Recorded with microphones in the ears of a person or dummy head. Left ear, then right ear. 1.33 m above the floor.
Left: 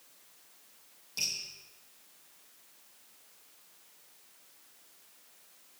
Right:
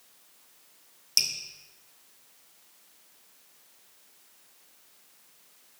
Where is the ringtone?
No ringtone in this recording.